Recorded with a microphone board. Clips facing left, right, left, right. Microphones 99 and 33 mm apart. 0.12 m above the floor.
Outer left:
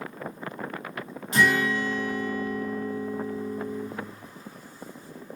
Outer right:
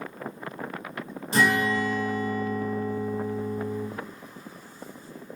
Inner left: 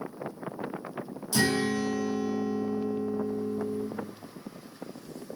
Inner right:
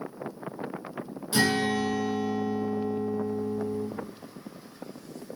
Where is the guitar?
35° right (ahead or behind), 1.8 m.